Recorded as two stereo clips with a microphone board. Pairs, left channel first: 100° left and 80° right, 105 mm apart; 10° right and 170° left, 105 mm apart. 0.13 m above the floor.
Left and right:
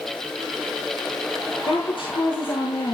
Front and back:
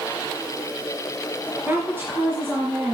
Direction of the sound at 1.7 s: 105° left.